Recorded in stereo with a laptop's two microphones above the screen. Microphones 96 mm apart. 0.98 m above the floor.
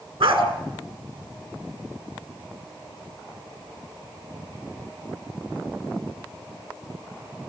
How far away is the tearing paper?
I don't hear tearing paper.